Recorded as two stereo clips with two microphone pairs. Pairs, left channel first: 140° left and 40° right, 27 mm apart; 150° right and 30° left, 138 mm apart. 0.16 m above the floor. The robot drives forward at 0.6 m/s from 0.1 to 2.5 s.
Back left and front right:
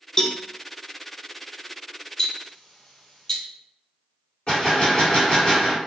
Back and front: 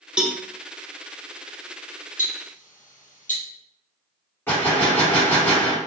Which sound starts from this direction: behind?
Ticking, at 2.2 s.